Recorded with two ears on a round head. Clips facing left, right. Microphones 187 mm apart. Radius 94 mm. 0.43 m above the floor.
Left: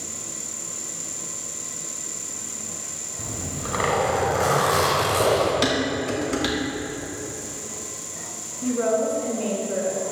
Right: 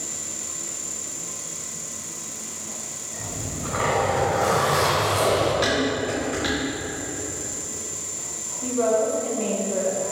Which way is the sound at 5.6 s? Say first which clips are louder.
Even; 60° left (ahead or behind).